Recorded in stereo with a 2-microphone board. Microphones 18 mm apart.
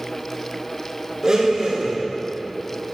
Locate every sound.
1.2 s a blender: 35° right (ahead or behind), 4 m